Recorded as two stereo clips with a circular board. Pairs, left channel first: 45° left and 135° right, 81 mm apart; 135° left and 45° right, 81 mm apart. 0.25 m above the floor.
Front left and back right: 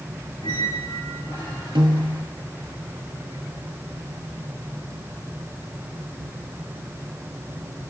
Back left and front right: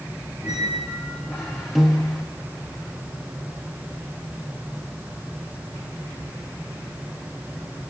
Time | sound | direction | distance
0.4 | a squeak | 35° left | 4.5 m
1.8 | a piano | 135° right | 0.9 m